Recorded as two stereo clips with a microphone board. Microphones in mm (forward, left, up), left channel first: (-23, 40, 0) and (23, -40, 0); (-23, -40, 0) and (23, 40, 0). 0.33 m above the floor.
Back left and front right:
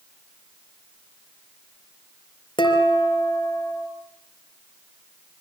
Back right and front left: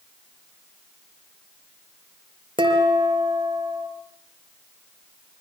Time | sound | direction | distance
2.6 | dishes clattering | 85° left | 4.5 m